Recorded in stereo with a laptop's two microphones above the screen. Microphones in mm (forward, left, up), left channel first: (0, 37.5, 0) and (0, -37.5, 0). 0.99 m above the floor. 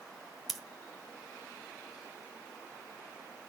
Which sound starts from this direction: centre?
Scissors, at 0.5 s.